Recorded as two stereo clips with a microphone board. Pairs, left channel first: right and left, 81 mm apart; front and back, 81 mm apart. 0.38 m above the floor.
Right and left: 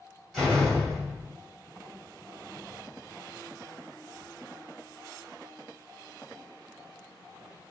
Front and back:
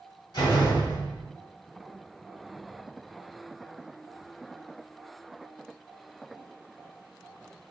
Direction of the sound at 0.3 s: 5° right.